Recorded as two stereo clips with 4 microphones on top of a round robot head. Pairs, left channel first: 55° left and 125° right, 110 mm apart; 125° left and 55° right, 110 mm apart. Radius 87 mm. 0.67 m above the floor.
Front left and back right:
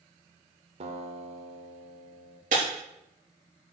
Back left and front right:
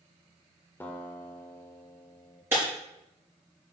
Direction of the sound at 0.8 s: 160° right.